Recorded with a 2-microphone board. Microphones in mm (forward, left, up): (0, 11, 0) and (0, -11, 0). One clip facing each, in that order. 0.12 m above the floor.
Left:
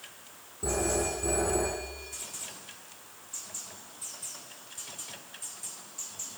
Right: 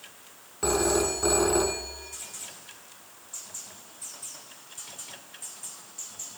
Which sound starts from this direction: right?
A phone ringing, at 0.6 s.